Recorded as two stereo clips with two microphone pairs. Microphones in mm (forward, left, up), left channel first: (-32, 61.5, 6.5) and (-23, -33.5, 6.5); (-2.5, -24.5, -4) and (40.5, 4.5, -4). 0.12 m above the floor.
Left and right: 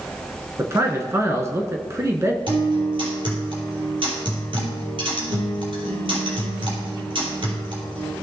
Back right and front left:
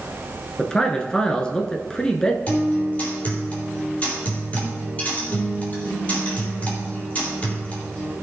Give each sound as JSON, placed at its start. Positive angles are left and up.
{"t": 0.6, "sound": "a man speaking", "azimuth_deg": -90, "distance_m": 1.2}
{"t": 2.5, "sound": "a guitar", "azimuth_deg": -90, "distance_m": 3.5}